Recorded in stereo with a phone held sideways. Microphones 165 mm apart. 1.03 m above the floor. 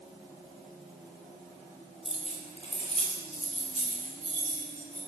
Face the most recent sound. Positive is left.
turn(degrees=50)  # may be behind; listen again after turning